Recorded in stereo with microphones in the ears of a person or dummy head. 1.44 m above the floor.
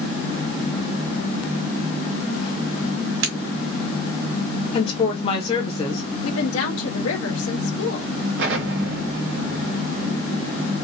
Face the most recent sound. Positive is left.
turn(degrees=-65)  # may be behind; listen again after turning